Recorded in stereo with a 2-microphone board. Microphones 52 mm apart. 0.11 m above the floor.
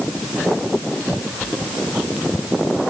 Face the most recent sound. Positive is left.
No sound to turn to.